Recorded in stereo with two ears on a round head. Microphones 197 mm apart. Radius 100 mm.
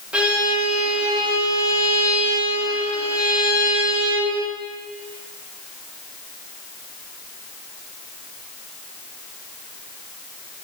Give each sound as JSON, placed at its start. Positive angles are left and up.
{"t": 0.1, "sound": "a violin", "side_deg": -5, "distance_m": 5.5}